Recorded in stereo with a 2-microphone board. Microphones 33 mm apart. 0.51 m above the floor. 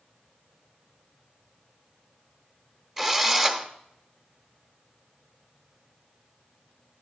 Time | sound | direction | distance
3.0 | a drill | 5° right (ahead or behind) | 0.9 m